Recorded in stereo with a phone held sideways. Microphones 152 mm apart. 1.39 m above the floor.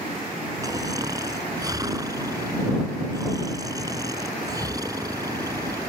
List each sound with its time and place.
0.6 s snoring: 25° right (ahead or behind)